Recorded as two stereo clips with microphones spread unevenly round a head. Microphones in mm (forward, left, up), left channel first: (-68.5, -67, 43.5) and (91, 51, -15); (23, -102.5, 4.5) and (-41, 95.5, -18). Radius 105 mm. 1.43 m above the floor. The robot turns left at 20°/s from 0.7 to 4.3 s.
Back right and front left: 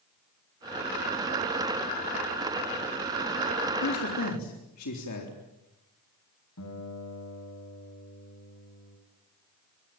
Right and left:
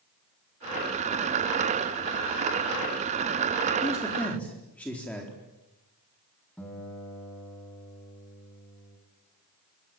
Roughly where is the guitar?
Behind right.